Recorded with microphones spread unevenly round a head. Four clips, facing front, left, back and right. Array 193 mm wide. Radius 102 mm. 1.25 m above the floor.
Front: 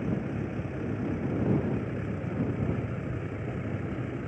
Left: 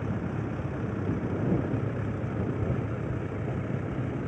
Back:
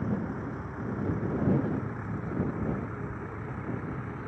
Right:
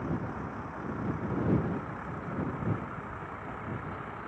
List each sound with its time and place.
0.0 s a vehicle: 65° left; by 4.3 s 70° left